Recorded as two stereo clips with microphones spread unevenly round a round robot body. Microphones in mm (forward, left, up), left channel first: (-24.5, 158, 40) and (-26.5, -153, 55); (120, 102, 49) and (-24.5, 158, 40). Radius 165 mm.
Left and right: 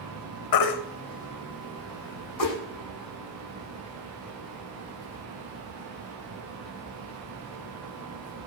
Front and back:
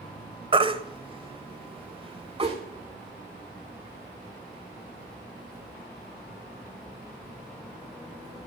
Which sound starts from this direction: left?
A baby crying, at 0.5 s.